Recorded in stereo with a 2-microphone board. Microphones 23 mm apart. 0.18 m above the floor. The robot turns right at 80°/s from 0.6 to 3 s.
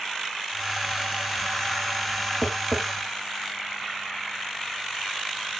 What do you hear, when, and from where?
2.4 s tapping: 10° right (ahead or behind), 0.5 m; by 2.8 s 20° right (ahead or behind), 0.5 m